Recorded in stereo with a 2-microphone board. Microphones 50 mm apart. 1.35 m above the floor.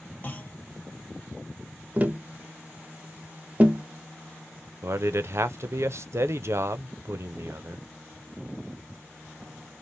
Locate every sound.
0.2 s a clunk: 35° left (ahead or behind), 0.9 m
2.0 s tapping: 30° right (ahead or behind), 0.5 m
4.8 s a man speaking: 60° right (ahead or behind), 0.6 m